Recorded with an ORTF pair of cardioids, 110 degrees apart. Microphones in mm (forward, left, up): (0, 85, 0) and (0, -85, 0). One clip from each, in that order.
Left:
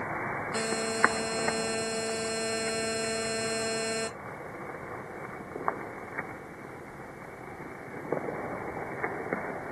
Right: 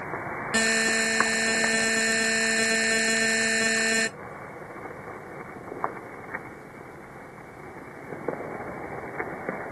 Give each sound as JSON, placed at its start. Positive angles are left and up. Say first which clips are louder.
{"t": 0.5, "sound": "a buzzer", "louder": "right 11 dB", "azimuth_deg": -50, "distance_m": 0.6}